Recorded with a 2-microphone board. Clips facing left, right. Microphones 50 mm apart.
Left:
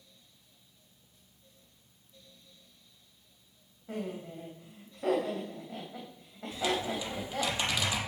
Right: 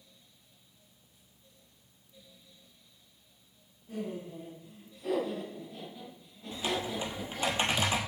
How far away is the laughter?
About 2.5 m.